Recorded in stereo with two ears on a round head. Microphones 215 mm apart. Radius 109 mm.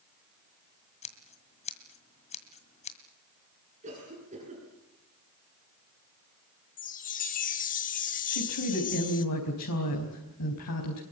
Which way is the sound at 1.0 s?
30° left (ahead or behind).